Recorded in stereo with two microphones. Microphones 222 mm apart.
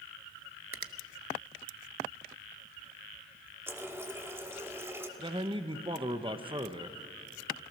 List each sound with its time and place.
0.7 s a finger snap: 75° right (ahead or behind), 0.8 m
3.7 s a running tap: 10° right (ahead or behind), 1.4 m
5.2 s a man speaking: 25° right (ahead or behind), 1.0 m